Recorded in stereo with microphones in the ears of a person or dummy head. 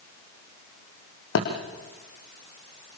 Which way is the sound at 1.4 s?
75° left (ahead or behind).